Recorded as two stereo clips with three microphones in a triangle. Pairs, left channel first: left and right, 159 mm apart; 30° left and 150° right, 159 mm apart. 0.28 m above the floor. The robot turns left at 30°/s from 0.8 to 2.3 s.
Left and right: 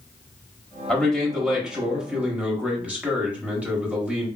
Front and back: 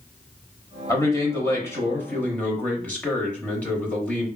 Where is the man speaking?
15° left, 0.9 m; by 4.3 s 25° right, 0.9 m.